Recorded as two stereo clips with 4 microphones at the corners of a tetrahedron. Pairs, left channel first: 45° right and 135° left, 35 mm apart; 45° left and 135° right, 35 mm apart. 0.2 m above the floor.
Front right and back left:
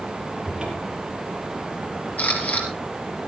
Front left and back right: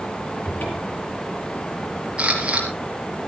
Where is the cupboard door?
65° left, 5.5 m.